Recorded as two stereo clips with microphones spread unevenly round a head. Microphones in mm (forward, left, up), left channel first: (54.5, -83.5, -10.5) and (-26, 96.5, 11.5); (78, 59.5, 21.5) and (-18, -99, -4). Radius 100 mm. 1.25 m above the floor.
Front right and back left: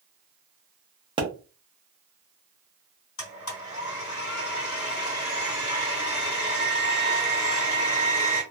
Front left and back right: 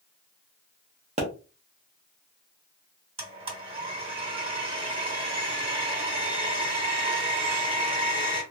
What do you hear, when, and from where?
1.2 s a pop: 175° right, 0.9 m
3.2 s a blender: 60° right, 2.0 m